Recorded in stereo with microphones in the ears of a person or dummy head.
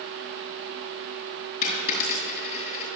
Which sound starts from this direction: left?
A dropped coin, at 1.6 s.